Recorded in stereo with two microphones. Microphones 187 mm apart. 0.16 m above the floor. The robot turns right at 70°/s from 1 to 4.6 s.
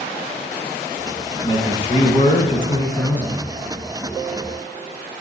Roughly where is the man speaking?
Ahead left.